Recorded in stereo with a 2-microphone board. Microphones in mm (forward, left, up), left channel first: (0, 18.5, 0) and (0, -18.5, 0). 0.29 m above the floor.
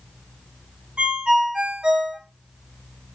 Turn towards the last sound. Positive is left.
turn(degrees=-30)  # may be behind; listen again after turning